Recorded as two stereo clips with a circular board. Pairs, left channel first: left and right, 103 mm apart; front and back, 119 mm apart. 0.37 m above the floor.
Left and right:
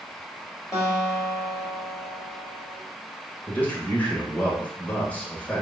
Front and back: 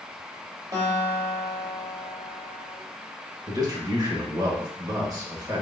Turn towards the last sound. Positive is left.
turn(degrees=150)